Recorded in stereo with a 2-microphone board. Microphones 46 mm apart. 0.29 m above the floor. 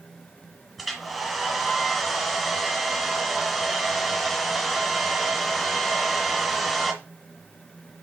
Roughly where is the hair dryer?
Centre.